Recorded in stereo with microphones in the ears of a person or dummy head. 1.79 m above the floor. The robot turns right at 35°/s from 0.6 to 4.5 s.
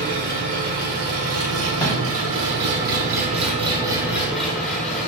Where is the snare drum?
20° left (ahead or behind), 1.6 m; by 2.2 s 10° left (ahead or behind), 1.6 m.